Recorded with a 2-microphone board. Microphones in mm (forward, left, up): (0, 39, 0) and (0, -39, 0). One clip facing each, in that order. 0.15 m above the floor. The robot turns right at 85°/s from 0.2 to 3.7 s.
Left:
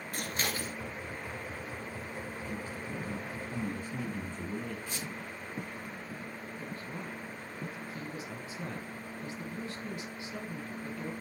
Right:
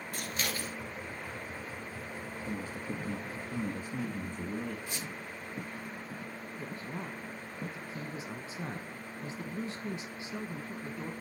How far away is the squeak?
About 5.5 m.